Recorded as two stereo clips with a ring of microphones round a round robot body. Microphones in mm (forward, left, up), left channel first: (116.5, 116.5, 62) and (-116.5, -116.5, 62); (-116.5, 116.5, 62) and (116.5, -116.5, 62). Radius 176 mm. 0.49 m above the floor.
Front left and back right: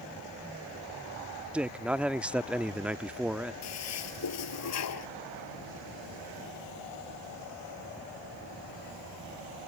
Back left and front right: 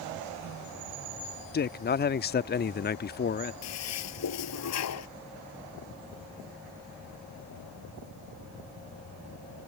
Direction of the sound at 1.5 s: 140° left.